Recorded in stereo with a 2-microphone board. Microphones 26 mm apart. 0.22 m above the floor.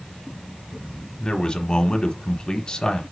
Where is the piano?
I don't hear a piano.